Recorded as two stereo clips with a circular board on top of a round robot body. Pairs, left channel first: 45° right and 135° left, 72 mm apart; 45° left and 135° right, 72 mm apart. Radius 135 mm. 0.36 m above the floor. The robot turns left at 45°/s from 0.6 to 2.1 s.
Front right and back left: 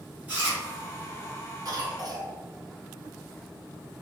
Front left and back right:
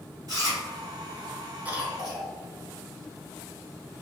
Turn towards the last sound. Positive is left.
turn(degrees=140)